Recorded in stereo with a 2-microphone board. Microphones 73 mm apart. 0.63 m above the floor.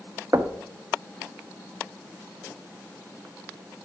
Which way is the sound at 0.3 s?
45° right (ahead or behind).